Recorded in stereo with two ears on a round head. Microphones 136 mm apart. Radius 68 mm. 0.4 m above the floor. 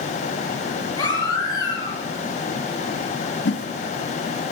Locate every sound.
1.0 s a baby crying: 25° left (ahead or behind), 6.5 m
3.5 s a whoosh: 85° left, 1.1 m